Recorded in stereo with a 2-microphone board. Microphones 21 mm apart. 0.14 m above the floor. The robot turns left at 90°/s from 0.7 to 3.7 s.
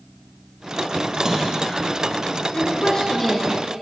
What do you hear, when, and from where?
1.1 s a splash: 145° right, 2.5 m; by 1.8 s 155° left, 2.5 m
2.5 s a woman speaking: 90° left, 1.9 m; by 3.8 s 15° right, 1.9 m